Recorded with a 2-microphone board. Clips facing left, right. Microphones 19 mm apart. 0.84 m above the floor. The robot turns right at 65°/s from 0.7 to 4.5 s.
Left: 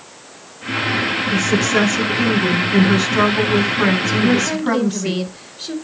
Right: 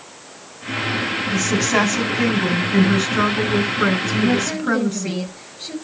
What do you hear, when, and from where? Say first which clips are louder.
1.3 s a woman speaking: left 1 dB; 90° right, 6 m; by 5.1 s 115° left, 6 m
4.1 s a woman speaking: left 3 dB; 75° left (ahead or behind), 4 m; by 5.8 s 70° left (ahead or behind), 4 m